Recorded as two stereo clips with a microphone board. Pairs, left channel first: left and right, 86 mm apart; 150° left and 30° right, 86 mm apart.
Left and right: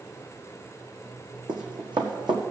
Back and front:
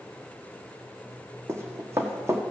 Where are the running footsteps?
85° right, 1.6 m.